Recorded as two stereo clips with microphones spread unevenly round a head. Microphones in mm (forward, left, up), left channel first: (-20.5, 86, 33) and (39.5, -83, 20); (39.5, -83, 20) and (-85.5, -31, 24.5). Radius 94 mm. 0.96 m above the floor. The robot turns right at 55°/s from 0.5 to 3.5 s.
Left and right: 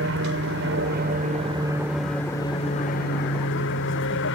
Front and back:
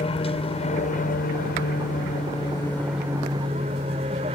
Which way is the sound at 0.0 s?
65° right.